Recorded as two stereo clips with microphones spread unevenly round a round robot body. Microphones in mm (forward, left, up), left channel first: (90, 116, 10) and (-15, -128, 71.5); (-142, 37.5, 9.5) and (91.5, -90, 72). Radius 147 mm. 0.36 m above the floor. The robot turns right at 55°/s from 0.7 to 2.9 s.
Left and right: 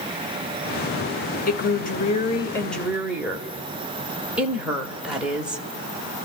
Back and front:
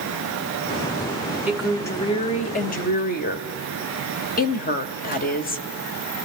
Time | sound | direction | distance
1.5 | a woman speaking | 70° left | 1.1 m